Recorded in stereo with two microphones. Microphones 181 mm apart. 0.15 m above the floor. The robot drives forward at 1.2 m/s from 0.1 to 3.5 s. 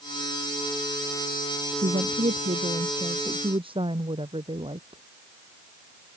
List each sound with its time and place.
1.8 s a woman speaking: 40° right (ahead or behind); by 5.0 s 30° right (ahead or behind)